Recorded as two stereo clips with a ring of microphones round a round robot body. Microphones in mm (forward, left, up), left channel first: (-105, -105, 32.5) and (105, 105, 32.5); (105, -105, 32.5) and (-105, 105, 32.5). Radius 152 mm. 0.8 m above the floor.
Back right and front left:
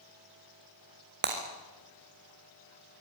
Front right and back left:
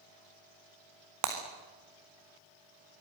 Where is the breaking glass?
100° left, 4 m.